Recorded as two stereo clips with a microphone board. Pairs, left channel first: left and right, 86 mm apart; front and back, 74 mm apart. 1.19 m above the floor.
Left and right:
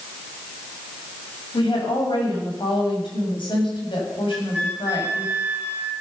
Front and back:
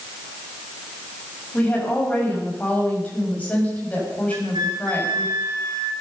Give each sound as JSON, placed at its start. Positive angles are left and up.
{"t": 1.5, "sound": "a woman speaking", "azimuth_deg": 70, "distance_m": 7.5}
{"t": 4.3, "sound": "a flute", "azimuth_deg": -160, "distance_m": 3.5}